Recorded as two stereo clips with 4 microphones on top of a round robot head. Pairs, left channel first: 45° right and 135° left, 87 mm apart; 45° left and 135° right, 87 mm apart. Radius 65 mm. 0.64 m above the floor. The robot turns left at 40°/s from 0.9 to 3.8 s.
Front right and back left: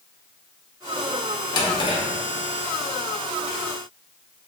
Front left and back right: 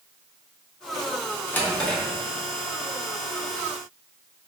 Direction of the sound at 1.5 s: 20° right.